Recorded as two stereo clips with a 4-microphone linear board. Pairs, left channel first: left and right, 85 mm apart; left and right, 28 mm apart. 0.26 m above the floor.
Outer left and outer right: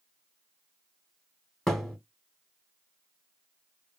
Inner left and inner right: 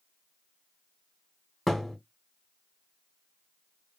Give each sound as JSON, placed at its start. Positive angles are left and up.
{"t": 1.7, "sound": "a thud", "side_deg": 5, "distance_m": 0.7}